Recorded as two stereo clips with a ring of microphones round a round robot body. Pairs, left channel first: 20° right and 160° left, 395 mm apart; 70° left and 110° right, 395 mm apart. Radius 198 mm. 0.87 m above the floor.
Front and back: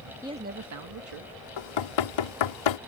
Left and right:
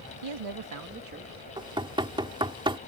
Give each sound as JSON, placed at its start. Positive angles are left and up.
{"t": 0.2, "sound": "a man speaking", "azimuth_deg": -120}
{"t": 1.6, "sound": "knocking", "azimuth_deg": -35}